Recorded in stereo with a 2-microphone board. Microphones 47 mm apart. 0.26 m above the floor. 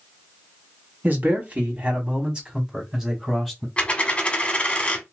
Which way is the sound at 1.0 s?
40° right (ahead or behind).